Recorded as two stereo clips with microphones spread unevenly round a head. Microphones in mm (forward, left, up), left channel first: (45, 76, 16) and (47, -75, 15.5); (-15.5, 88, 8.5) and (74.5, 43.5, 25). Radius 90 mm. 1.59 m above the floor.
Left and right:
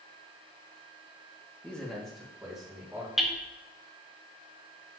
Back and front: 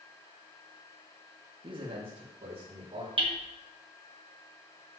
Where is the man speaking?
10° left, 2.0 m; by 3.1 s 5° right, 4 m.